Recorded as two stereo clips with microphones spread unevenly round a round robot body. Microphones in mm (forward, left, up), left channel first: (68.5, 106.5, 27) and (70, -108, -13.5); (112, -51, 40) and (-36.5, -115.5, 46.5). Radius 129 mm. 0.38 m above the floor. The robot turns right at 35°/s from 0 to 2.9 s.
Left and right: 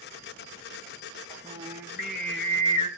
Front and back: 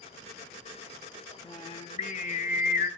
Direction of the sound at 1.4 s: 30° right.